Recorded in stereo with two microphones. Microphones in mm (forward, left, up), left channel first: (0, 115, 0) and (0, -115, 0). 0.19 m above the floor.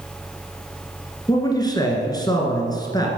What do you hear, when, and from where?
1.3 s a man speaking: 20° left (ahead or behind), 2 m